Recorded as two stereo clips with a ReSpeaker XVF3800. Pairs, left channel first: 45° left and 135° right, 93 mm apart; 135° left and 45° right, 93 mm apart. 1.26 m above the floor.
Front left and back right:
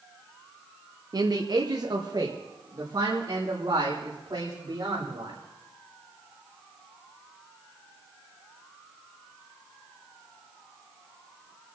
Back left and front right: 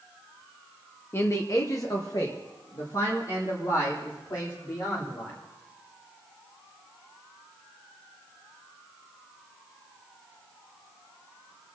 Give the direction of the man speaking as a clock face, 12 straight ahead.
6 o'clock.